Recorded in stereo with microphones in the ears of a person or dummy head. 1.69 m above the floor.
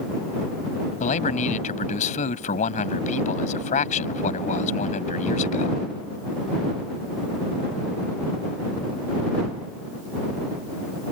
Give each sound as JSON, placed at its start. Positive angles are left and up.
{"t": 1.0, "sound": "a man speaking", "side_deg": 40}